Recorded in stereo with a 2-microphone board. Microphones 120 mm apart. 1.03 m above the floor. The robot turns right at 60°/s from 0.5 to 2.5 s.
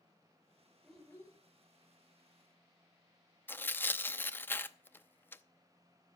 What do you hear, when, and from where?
0.8 s a child speaking: straight ahead, 2.5 m; by 1.4 s 30° left, 2.5 m
3.5 s tearing paper: 15° left (ahead or behind), 0.6 m